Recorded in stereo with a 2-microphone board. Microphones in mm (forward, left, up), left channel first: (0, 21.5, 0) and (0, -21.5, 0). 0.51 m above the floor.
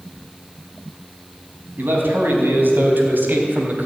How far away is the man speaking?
About 4.5 m.